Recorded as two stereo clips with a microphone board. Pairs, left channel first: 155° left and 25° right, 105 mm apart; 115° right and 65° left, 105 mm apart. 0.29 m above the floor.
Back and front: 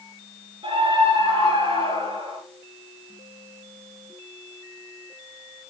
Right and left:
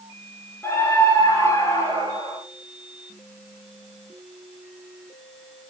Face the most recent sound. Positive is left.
turn(degrees=-50)